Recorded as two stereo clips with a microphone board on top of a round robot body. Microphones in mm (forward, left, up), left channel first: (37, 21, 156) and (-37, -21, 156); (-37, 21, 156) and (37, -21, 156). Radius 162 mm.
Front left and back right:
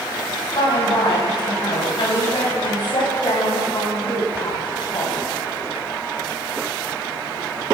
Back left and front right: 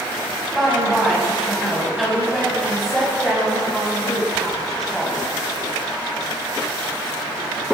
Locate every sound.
0.6 s a woman speaking: 60° left, 5.5 m